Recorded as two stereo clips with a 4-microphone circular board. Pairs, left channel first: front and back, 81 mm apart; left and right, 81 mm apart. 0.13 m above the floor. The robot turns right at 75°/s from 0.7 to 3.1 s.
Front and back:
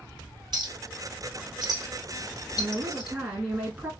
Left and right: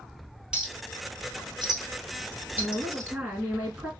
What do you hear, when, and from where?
0.5 s a clink: 170° right, 1.9 m; by 3.2 s 10° left, 1.9 m
2.6 s a woman speaking: 175° left, 1.1 m; by 3.9 s 145° right, 1.1 m